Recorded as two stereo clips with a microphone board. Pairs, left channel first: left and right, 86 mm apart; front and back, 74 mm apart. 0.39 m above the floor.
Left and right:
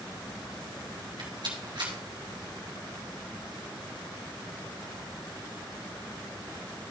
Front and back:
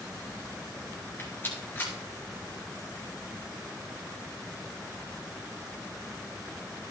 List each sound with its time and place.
1.2 s a rattle: 60° right, 2.5 m